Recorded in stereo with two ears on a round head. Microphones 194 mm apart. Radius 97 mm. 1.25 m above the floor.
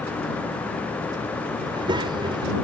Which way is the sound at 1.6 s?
25° right (ahead or behind).